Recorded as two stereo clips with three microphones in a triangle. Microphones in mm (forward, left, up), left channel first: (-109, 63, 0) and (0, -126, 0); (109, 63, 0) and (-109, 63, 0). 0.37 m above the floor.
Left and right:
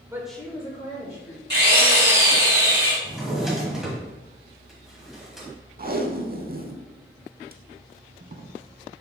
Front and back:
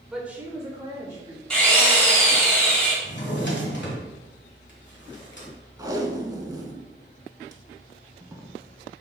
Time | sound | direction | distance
0.1 | a woman speaking | 95° right | 0.8 m
1.5 | a drill | 85° right | 1.9 m
3.0 | a drawer | 30° left | 1.4 m
5.8 | tape being pulled | 110° right | 0.5 m